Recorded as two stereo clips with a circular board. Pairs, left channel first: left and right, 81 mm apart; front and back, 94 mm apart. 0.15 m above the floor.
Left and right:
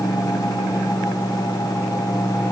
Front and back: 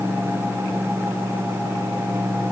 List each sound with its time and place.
Only background noise.